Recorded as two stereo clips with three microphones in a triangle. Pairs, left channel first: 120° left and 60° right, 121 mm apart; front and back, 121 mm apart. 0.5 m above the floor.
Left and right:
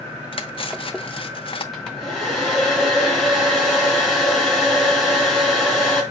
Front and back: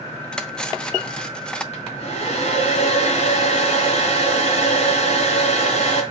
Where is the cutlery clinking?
85° left, 0.8 m.